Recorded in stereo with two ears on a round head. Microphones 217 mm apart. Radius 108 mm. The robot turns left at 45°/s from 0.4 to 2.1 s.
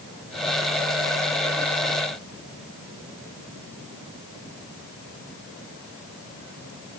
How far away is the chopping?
No chopping in this recording.